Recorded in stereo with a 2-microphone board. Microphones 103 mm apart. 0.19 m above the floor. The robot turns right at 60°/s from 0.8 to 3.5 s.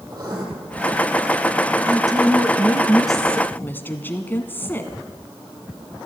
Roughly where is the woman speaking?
Right.